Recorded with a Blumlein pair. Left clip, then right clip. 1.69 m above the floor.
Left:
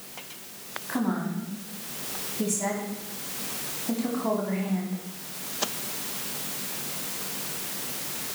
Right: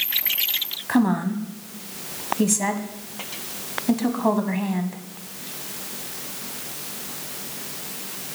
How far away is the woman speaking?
About 1.1 m.